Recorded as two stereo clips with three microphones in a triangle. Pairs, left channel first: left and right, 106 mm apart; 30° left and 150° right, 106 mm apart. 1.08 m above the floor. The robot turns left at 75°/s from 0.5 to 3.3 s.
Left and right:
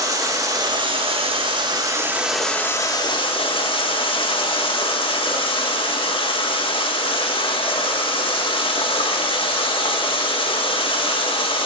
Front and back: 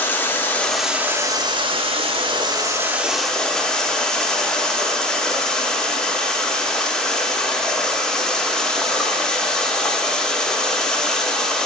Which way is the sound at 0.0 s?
40° right.